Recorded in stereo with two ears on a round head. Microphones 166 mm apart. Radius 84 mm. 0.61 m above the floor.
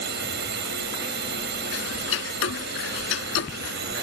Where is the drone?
65° right (ahead or behind).